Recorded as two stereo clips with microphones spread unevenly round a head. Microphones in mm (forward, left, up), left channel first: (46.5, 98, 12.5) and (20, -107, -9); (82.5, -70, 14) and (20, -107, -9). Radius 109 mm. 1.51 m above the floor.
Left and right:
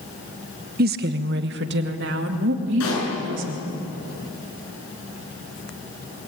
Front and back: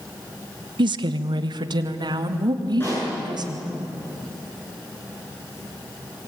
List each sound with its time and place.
0.8 s a woman speaking: 150° right, 0.9 m; by 3.6 s 135° right, 4 m
2.8 s a pop: 105° left, 9 m